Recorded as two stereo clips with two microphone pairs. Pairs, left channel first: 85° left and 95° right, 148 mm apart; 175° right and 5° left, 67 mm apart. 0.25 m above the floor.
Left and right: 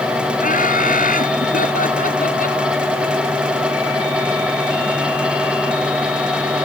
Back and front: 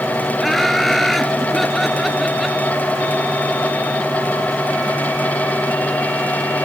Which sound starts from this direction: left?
Laughter, at 0.4 s.